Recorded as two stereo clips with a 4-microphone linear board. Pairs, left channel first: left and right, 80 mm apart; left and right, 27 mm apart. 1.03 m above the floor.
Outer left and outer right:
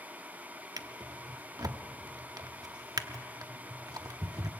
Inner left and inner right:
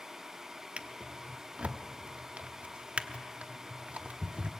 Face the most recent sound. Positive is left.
turn(degrees=-55)  # may be behind; listen again after turning